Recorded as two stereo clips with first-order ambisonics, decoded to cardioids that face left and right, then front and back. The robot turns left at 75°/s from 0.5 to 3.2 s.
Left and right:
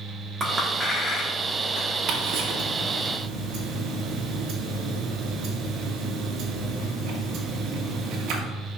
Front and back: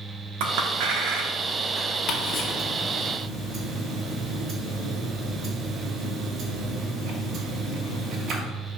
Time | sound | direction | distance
0.4 | a clink | 160° right | 1.2 m
2.1 | ticking | 40° right | 1.7 m